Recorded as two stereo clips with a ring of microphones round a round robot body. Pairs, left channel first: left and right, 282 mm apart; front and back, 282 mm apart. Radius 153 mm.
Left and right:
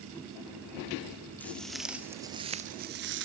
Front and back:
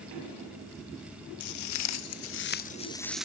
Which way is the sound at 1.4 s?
5° left.